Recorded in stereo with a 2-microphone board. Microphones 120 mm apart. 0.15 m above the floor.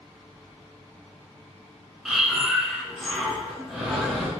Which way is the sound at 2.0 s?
5° right (ahead or behind).